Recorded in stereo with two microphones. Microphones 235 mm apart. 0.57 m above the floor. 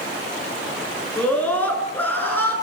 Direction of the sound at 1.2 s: 5° left (ahead or behind).